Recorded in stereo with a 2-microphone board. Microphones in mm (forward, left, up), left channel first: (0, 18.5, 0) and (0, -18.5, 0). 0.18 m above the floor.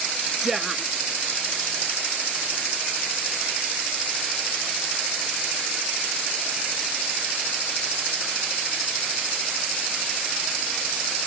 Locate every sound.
0.4 s a woman speaking: 10° right (ahead or behind)